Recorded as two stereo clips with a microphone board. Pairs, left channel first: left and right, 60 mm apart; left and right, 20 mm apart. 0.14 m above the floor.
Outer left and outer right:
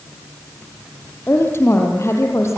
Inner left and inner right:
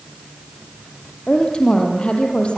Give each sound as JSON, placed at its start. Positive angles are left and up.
{"t": 1.3, "sound": "a woman speaking", "side_deg": 40, "distance_m": 4.0}